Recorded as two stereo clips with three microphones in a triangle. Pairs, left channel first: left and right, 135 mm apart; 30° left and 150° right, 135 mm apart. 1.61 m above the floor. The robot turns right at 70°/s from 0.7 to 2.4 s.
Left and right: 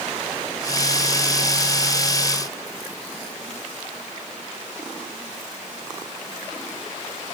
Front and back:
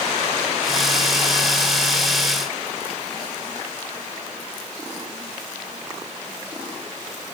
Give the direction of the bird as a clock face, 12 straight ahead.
I don't hear a bird.